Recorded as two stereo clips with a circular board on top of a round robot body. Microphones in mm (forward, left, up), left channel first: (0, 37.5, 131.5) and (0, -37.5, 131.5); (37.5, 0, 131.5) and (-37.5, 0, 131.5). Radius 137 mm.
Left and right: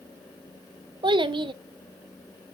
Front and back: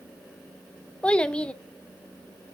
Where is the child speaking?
75° right, 0.7 m.